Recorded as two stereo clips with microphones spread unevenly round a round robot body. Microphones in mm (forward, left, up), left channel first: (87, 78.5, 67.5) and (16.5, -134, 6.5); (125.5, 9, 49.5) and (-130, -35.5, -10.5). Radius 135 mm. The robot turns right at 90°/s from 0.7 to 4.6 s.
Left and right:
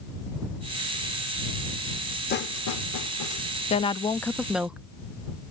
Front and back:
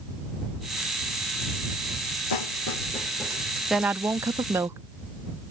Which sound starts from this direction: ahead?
A snare drum, at 2.3 s.